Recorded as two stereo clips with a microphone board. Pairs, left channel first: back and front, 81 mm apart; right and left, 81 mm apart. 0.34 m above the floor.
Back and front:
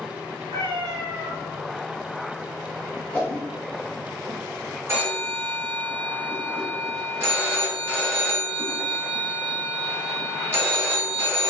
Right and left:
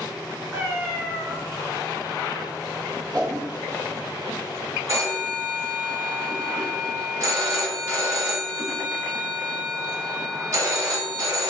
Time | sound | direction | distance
0.5 | a cat meowing | 15° left | 0.8 m
3.1 | a whoosh | 110° left | 1.3 m
4.9 | a phone ringing | 50° left | 1.3 m